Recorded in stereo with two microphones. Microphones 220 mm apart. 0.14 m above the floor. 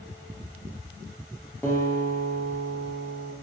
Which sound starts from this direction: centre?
A guitar, at 1.6 s.